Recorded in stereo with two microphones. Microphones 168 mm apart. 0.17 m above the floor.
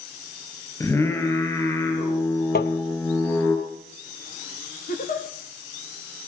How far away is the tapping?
About 1.4 m.